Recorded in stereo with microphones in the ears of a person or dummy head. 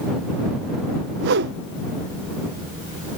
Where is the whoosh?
55° right (ahead or behind).